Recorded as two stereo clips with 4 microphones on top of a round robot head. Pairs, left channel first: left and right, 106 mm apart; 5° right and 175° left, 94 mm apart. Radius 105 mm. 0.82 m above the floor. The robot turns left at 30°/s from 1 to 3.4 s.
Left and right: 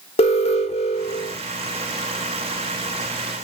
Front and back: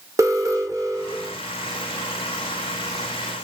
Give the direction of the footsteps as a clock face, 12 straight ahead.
No footsteps in this recording.